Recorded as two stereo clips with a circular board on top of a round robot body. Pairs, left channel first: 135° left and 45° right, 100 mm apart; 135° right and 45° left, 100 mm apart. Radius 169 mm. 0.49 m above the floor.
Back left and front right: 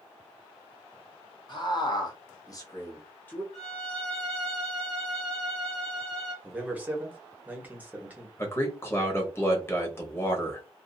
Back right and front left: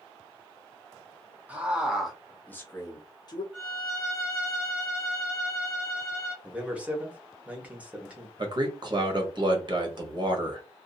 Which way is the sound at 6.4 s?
5° right.